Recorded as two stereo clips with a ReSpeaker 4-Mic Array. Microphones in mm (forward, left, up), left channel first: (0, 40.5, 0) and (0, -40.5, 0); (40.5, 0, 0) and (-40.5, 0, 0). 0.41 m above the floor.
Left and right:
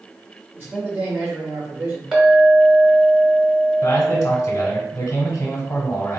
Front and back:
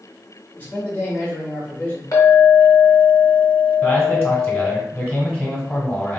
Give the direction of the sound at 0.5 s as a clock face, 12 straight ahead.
2 o'clock.